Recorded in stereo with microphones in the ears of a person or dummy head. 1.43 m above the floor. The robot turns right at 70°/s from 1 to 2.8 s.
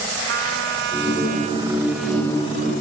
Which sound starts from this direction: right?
A trumpet, at 0.3 s.